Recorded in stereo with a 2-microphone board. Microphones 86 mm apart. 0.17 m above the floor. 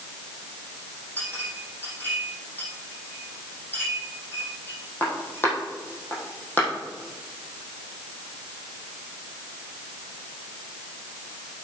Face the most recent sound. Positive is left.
turn(degrees=25)  # may be behind; listen again after turning